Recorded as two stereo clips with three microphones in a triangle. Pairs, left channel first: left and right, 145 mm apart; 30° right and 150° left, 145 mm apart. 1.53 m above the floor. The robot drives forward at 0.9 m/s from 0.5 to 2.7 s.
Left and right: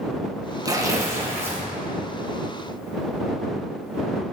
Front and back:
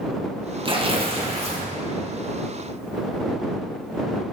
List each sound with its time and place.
0.7 s tearing paper: 155° right, 1.4 m; by 1.7 s 165° right, 2 m